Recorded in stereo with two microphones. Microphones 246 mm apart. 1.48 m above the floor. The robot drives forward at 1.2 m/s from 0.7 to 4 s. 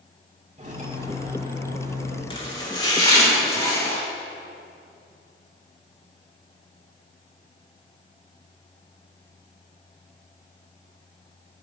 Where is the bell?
I don't hear a bell.